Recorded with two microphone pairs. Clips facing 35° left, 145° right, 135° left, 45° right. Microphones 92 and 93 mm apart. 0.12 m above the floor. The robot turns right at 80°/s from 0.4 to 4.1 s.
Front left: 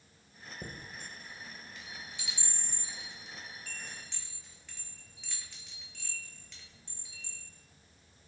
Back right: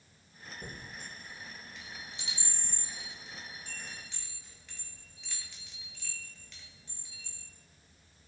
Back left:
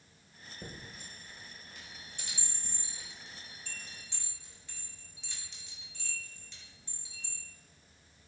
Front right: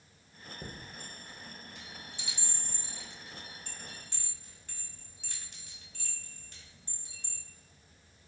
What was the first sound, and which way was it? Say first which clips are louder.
A chime: front left 1 dB, front right 1 dB; 25° left.